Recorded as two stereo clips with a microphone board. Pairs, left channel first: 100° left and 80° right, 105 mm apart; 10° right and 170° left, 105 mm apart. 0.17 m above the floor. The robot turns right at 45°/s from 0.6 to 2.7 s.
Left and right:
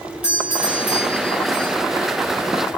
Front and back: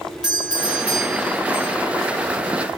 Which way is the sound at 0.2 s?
105° left.